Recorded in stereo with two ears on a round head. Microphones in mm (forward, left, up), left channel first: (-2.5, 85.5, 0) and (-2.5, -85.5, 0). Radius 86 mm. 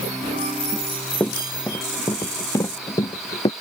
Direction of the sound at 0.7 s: 10° left (ahead or behind).